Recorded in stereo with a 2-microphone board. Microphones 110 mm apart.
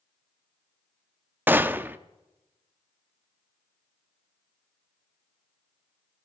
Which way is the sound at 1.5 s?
20° right (ahead or behind).